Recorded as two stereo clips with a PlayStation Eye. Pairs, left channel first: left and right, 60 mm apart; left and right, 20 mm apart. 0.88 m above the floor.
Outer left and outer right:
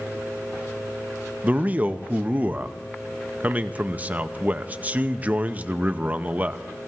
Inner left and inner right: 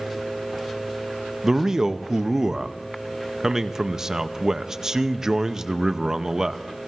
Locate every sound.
1.4 s a man speaking: 25° right (ahead or behind), 0.7 m